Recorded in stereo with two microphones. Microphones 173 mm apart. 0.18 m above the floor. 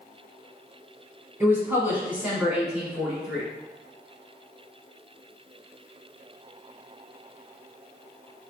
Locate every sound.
1.4 s a woman speaking: 15° right (ahead or behind), 1.0 m; by 3.5 s 5° right (ahead or behind), 1.9 m